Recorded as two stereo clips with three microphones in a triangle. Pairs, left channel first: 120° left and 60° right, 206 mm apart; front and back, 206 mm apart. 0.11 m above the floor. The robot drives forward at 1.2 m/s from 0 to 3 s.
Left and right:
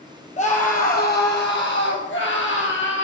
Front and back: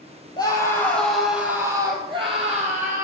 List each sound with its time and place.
0.4 s a scream: 65° left, 3 m; by 3.0 s 130° left, 3.5 m